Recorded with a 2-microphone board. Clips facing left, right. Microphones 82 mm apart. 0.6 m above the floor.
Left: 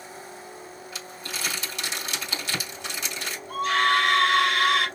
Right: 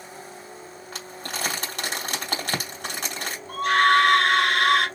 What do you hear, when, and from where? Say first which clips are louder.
0.9 s crumpling: right 4 dB; 50° right (ahead or behind), 2.5 m
3.5 s a scream: right 4 dB; 55° right (ahead or behind), 2.0 m